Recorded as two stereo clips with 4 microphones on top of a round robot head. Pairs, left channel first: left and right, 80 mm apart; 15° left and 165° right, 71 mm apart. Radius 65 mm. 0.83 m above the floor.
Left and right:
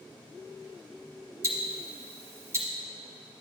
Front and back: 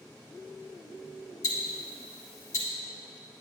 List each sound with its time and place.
1.4 s ticking: 35° right, 1.1 m